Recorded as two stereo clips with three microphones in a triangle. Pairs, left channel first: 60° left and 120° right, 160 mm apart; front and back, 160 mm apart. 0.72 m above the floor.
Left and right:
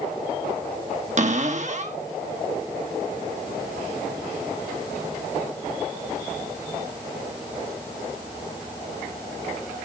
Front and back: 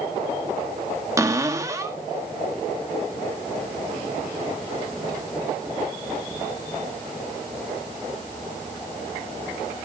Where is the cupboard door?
115° right, 1.3 m.